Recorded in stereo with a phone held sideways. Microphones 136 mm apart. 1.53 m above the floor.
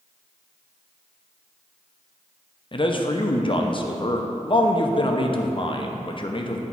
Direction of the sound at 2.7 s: 40° left (ahead or behind).